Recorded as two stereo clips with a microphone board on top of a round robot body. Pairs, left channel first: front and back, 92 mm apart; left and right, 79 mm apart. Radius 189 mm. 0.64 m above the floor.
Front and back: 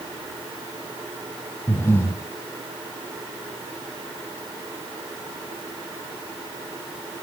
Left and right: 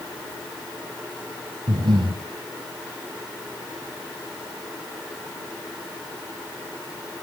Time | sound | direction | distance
1.7 | breathing | 65° right | 3 m